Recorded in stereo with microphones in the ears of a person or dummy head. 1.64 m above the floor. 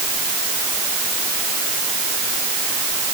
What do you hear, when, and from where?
Only background noise.